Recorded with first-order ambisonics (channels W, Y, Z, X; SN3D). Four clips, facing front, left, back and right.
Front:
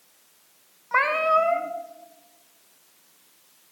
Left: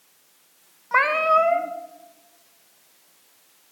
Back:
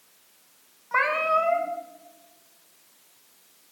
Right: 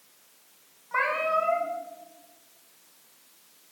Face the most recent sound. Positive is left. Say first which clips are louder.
# left 7 dB, front 2 dB
turn(degrees=75)